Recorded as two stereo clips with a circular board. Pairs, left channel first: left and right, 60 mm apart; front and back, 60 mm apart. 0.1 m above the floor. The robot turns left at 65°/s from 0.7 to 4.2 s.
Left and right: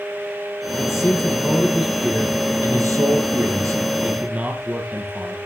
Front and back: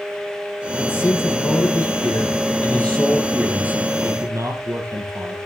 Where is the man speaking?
65° left, 3 m; by 5.4 s 160° right, 3 m.